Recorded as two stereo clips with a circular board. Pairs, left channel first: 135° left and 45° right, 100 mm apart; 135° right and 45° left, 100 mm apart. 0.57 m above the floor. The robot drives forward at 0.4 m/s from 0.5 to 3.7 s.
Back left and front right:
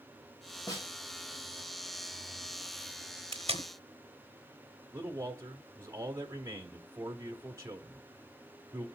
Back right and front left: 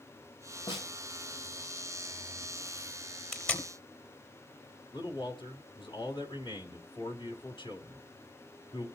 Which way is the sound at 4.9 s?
105° right.